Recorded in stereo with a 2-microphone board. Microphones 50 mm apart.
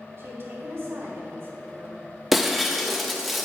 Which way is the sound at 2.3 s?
Centre (ahead or behind).